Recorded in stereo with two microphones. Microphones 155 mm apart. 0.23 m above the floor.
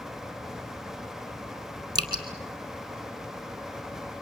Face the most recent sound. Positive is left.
turn(degrees=-25)  # may be behind; listen again after turning